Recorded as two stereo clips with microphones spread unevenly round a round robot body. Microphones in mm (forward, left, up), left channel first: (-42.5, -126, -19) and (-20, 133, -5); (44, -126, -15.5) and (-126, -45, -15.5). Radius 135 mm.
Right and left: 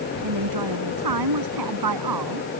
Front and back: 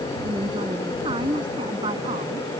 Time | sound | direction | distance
0.2 | a woman speaking | 80° left | ?